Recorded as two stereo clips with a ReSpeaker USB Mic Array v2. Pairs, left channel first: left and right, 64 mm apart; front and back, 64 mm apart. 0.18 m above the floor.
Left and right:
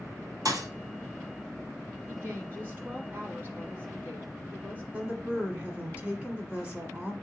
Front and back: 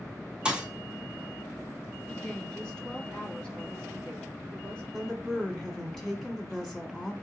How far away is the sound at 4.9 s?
About 1.2 m.